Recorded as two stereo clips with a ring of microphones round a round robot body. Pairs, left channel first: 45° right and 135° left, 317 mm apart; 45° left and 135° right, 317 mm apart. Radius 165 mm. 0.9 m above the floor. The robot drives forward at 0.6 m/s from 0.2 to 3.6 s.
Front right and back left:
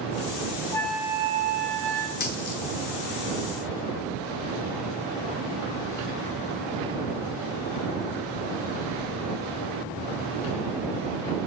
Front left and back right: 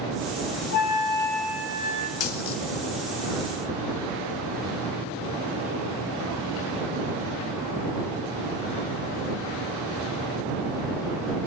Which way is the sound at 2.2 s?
10° left.